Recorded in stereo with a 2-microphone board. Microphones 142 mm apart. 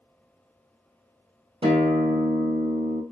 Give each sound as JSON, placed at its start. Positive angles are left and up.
{"t": 1.6, "sound": "a guitar", "side_deg": -40, "distance_m": 1.7}